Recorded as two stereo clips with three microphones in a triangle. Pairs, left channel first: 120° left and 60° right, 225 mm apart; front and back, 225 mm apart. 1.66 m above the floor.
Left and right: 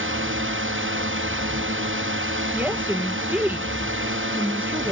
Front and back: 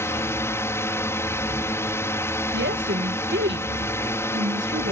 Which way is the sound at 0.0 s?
80° right.